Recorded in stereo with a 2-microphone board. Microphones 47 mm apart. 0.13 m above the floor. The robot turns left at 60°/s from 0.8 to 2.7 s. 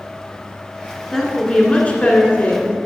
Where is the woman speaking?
170° left, 1.4 m; by 2.8 s 75° left, 1.4 m.